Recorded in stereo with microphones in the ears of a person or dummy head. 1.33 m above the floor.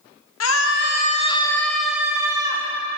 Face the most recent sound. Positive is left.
turn(degrees=-20)  # may be behind; listen again after turning